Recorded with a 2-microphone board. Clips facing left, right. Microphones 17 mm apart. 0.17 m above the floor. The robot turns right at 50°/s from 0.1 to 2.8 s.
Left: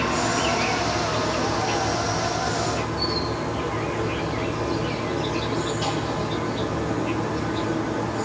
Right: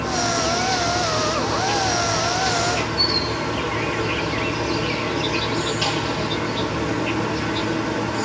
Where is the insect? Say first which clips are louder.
Right 1 dB; 110° left, 1.2 m; by 8.3 s 115° right, 1.2 m.